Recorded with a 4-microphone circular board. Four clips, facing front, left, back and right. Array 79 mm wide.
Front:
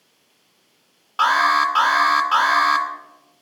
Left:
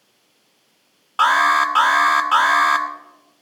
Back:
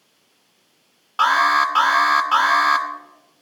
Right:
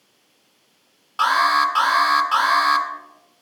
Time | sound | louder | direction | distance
1.2 | an alarm | left 2 dB, even | 95° left | 1.6 m